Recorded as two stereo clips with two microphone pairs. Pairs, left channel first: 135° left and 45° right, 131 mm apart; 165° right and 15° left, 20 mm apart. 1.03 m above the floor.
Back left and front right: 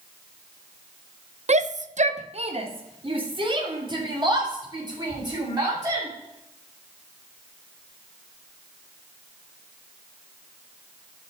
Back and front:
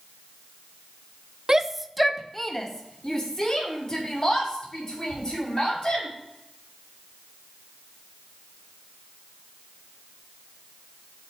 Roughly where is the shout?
Ahead right.